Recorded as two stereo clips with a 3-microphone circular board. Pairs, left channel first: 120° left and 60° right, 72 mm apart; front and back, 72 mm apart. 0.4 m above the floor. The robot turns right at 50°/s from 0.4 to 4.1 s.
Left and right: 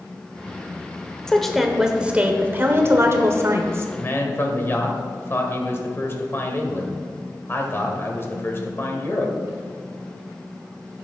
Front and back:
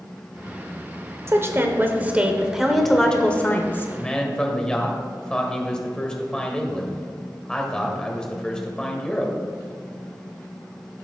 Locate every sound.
1.3 s a woman speaking: 165° right, 1.2 m; by 3.9 s 35° right, 1.2 m
4.0 s a man speaking: 70° left, 1.9 m; by 9.3 s 75° left, 1.9 m